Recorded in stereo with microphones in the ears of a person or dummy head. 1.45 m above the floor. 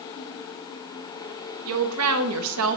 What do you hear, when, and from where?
1.6 s a woman speaking: 80° right, 1.1 m; by 2.8 s 70° right (ahead or behind), 0.9 m